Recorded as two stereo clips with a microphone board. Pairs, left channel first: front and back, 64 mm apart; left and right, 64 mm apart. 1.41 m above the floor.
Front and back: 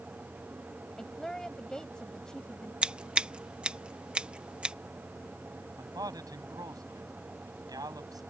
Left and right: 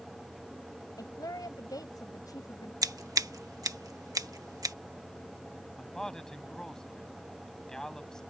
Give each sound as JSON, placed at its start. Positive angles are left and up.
{"t": 1.0, "sound": "a woman speaking", "azimuth_deg": 80}
{"t": 2.8, "sound": "scissors", "azimuth_deg": -105}
{"t": 5.8, "sound": "a man speaking", "azimuth_deg": 170}